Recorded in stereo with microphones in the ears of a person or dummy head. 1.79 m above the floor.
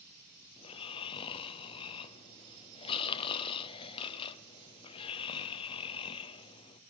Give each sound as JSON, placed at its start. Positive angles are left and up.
{"t": 0.6, "sound": "snoring", "side_deg": 25, "distance_m": 0.6}